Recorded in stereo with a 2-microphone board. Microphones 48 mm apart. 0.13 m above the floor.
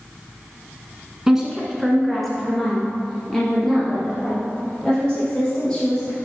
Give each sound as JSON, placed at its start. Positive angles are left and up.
{"t": 1.3, "sound": "a woman speaking", "side_deg": -10, "distance_m": 1.4}